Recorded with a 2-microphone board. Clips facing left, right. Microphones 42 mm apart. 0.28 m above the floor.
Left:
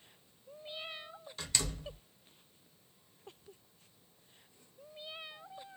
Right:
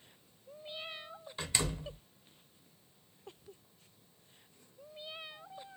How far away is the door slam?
About 0.8 m.